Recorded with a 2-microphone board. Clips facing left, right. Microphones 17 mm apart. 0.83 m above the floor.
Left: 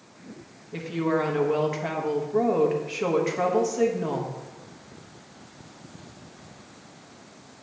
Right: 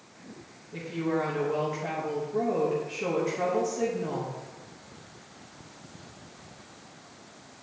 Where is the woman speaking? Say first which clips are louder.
Left 4 dB; 40° left (ahead or behind), 1.1 m.